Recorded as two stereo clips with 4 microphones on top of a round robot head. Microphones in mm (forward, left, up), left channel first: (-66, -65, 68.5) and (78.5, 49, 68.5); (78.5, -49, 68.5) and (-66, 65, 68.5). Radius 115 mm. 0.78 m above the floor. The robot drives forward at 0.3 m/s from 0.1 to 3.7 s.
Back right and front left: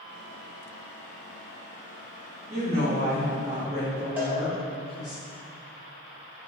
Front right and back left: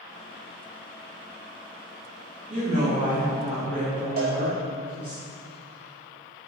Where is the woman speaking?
90° left, 1.2 m; by 5.2 s 110° left, 1.3 m.